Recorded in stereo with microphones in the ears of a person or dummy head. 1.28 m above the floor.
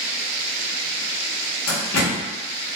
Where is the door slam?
85° left, 1.0 m.